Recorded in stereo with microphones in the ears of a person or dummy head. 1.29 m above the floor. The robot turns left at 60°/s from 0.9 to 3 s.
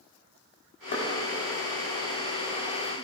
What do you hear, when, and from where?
0.9 s knocking: 40° left (ahead or behind), 1.7 m; by 1.1 s 45° left (ahead or behind), 1.7 m